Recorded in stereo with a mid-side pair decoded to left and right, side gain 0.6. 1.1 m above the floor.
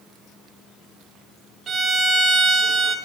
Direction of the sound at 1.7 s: 35° right.